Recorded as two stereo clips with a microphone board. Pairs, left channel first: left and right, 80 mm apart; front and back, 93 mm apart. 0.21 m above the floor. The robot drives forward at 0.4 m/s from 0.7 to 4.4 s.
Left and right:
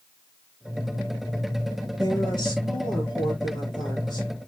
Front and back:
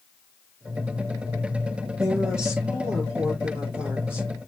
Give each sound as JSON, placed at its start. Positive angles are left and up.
{"t": 2.0, "sound": "a woman speaking", "azimuth_deg": 100, "distance_m": 5.0}